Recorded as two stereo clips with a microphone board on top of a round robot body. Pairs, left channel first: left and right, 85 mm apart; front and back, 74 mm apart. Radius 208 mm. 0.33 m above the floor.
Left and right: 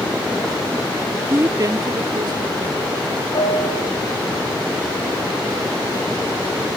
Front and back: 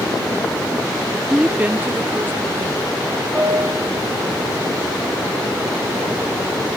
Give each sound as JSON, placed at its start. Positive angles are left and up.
{"t": 1.3, "sound": "a woman speaking", "azimuth_deg": -110, "distance_m": 1.1}
{"t": 3.3, "sound": "a piano", "azimuth_deg": 110, "distance_m": 2.5}